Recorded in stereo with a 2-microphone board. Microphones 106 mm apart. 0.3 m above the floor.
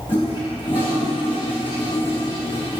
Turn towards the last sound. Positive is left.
turn(degrees=50)  # may be behind; listen again after turning